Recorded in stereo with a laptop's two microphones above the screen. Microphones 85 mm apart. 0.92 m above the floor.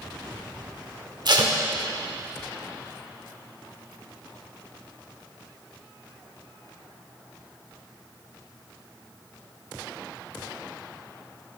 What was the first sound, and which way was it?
Tape being pulled, 55° right (ahead or behind).